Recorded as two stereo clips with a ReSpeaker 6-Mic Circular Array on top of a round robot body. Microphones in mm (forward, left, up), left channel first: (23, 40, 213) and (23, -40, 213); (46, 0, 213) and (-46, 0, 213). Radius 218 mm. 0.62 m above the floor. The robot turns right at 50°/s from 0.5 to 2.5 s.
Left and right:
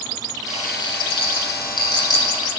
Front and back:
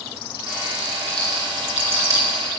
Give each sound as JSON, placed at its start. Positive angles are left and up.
{"t": 0.5, "sound": "a rattle", "azimuth_deg": 45, "distance_m": 4.5}